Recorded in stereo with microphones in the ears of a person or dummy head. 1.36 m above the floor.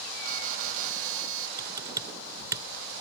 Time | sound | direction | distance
0.2 | an alarm | 45° right (ahead or behind) | ?
1.6 | typing on a keyboard | 15° right (ahead or behind) | ?